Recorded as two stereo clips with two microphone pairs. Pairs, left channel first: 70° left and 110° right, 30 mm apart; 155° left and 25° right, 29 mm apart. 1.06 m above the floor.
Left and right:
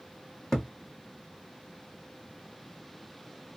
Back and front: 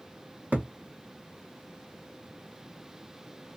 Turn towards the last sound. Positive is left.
turn(degrees=0)